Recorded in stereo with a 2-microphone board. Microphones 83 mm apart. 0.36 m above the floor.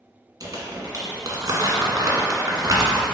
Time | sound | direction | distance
0.4 | crumpling | 45° right (ahead or behind) | 1.9 m